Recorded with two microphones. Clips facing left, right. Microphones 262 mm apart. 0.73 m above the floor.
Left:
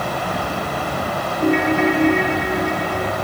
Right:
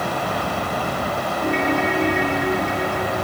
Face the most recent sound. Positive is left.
turn(degrees=60)  # may be behind; listen again after turning